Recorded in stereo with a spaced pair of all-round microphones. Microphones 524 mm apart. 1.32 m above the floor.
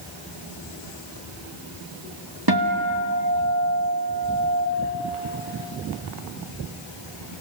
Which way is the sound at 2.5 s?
45° right (ahead or behind).